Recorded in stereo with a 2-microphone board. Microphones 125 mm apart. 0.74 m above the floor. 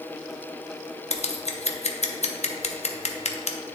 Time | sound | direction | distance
1.1 | scissors | 60° left (ahead or behind) | 0.6 m